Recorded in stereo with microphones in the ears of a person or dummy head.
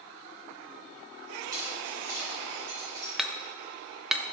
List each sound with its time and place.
1.5 s keys jangling: 10° right (ahead or behind), 3.5 m
3.2 s hammering: 5° right (ahead or behind), 0.6 m